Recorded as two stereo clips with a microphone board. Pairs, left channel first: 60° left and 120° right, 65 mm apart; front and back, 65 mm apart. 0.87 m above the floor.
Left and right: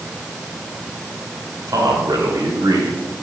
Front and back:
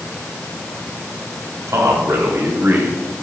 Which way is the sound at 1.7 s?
140° right.